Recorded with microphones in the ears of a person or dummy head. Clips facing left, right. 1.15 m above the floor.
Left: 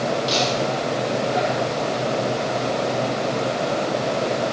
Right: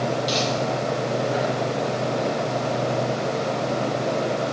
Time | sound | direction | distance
0.3 | laughter | 25° right (ahead or behind) | 8.5 m